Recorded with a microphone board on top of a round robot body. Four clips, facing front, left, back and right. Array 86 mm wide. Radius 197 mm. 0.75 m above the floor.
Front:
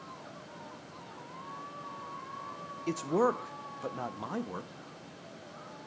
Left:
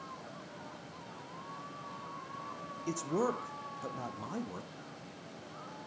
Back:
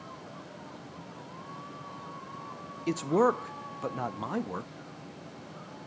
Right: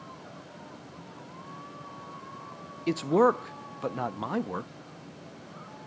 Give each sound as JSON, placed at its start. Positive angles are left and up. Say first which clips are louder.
{"t": 2.9, "sound": "a man speaking", "louder": "right 11 dB, back 3 dB", "azimuth_deg": -105, "distance_m": 0.5}